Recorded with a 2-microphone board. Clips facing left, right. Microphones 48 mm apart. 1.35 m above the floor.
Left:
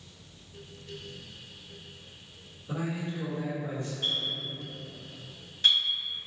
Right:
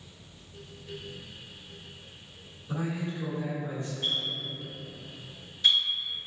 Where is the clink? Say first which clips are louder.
Right 1 dB; 55° left (ahead or behind), 1.5 m.